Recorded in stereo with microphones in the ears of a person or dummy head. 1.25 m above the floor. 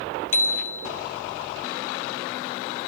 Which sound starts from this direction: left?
A bicycle bell, at 0.3 s.